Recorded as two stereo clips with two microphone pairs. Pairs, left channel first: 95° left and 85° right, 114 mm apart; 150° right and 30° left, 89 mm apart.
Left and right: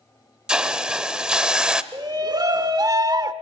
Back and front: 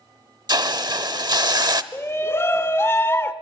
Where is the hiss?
Straight ahead, 0.7 m.